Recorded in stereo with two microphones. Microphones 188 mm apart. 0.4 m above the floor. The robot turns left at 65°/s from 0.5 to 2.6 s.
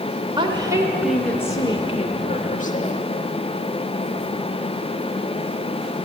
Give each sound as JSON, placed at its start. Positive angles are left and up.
{"t": 0.4, "sound": "a woman speaking", "azimuth_deg": -140, "distance_m": 1.1}